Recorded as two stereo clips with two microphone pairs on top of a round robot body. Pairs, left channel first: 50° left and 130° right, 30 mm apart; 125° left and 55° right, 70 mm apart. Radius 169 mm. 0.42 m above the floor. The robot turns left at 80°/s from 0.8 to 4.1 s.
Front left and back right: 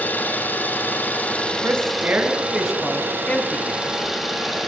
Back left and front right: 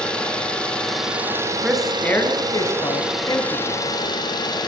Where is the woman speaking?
130° right, 5.5 m; by 3.8 s 55° left, 5.5 m.